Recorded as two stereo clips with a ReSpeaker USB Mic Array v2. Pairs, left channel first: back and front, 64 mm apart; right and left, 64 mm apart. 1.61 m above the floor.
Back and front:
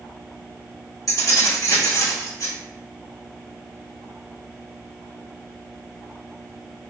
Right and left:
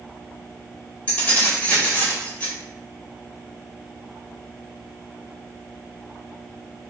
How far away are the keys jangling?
About 1.5 m.